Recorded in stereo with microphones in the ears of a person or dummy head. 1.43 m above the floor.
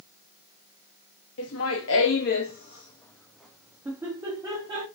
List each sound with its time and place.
1.4 s laughter: 80° left, 0.9 m; by 4.8 s 20° right (ahead or behind), 1.4 m